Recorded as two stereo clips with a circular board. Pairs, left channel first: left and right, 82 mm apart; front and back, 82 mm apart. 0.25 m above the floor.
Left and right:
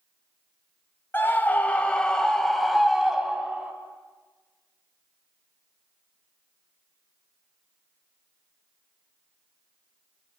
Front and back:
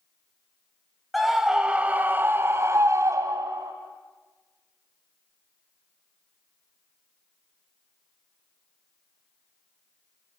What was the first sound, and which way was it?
A scream, 85° left.